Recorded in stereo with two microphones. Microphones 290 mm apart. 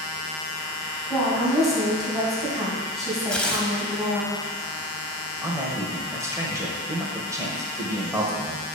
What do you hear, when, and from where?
1.1 s a woman speaking: centre (ahead or behind), 2.5 m
3.3 s tearing paper: 5° left (ahead or behind), 0.8 m
5.4 s a man speaking: 10° right (ahead or behind), 1.3 m